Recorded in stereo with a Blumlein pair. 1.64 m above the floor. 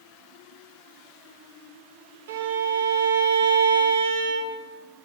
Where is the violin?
60° right, 1.2 m.